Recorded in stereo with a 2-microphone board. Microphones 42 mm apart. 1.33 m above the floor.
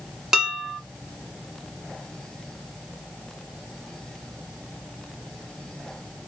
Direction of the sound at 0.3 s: 15° right (ahead or behind).